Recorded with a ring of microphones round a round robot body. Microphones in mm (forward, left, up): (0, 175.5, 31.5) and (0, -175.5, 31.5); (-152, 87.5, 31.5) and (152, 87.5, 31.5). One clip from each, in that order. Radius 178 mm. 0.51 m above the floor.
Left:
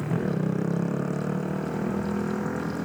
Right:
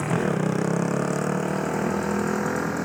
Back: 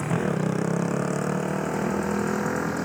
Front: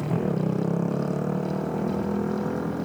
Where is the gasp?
No gasp in this recording.